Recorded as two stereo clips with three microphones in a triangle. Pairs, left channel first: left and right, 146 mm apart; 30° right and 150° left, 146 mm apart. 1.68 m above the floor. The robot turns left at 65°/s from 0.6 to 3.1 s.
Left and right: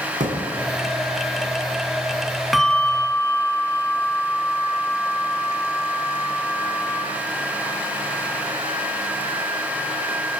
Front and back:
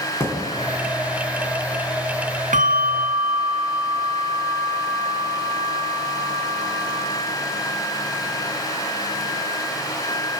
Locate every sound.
0.2 s a thud: 100° right, 3 m
2.5 s a bell: straight behind, 1.0 m; by 7.0 s 145° left, 1.0 m